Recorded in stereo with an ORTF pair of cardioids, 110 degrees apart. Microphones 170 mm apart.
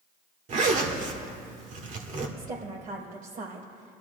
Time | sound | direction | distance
0.5 | a zipper | 50° right | 1.7 m
2.4 | a woman speaking | 60° right | 4.5 m